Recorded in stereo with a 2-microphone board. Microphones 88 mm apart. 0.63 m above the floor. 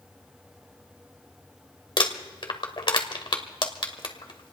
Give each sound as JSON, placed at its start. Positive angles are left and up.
{"t": 2.0, "sound": "crumpling", "side_deg": 70, "distance_m": 1.4}